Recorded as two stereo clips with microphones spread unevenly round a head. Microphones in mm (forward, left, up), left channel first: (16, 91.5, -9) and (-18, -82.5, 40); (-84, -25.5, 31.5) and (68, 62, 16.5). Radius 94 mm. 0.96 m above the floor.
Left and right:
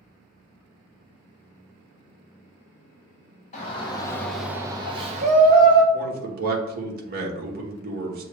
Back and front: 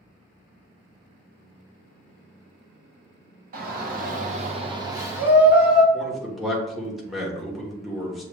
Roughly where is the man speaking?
Ahead right.